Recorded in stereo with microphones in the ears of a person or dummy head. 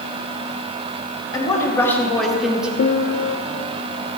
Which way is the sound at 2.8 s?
60° left (ahead or behind).